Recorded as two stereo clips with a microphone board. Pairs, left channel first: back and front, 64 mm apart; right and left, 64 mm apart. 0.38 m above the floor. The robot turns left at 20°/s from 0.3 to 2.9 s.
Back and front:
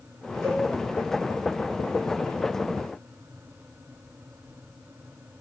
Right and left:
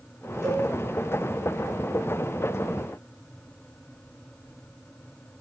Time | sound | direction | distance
0.4 | a cowbell | 170° left | 1.9 m